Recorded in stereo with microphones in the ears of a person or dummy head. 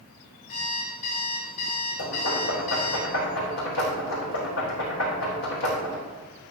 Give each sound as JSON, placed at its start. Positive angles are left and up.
{"t": 0.5, "sound": "an alarm clock", "side_deg": 45, "distance_m": 5.5}
{"t": 2.0, "sound": "knocking", "side_deg": 80, "distance_m": 4.5}